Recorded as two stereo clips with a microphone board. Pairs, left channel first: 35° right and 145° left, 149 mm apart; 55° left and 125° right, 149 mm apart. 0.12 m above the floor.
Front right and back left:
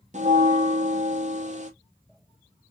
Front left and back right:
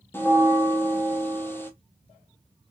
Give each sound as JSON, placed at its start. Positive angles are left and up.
{"t": 0.1, "sound": "a bell", "azimuth_deg": 130, "distance_m": 0.7}